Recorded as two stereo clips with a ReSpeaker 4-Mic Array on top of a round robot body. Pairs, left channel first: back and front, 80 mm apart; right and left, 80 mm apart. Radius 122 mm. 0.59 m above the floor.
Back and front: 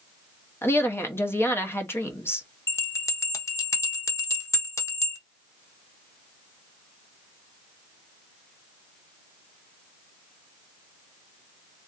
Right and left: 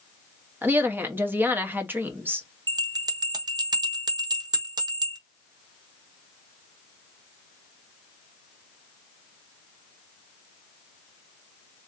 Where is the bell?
125° left, 0.8 m.